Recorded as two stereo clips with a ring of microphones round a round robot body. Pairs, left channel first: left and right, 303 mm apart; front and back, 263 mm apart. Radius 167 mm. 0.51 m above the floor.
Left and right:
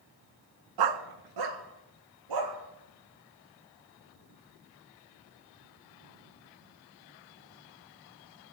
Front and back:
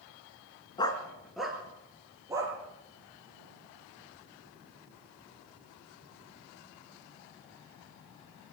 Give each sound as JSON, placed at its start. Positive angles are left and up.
{"t": 0.8, "sound": "a dog barking", "azimuth_deg": -75, "distance_m": 1.6}